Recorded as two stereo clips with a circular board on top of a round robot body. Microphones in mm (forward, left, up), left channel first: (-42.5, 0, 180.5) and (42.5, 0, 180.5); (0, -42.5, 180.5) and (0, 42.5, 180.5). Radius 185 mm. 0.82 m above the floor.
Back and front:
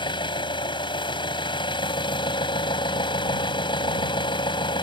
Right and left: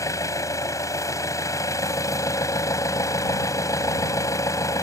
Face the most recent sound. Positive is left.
turn(degrees=-145)